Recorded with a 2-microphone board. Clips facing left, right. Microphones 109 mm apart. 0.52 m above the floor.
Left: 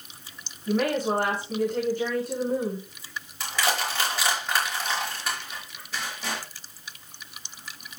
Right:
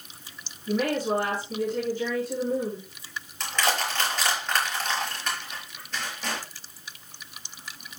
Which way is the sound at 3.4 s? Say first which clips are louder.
Even; 10° left (ahead or behind).